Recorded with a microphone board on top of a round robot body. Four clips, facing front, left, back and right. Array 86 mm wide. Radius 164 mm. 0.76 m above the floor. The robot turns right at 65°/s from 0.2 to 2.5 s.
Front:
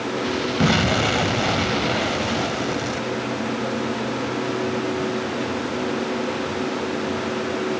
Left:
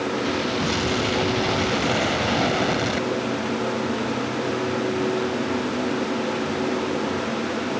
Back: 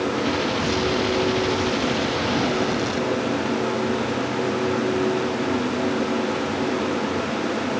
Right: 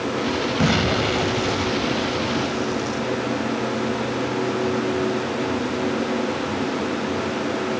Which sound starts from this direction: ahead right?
An explosion, at 0.6 s.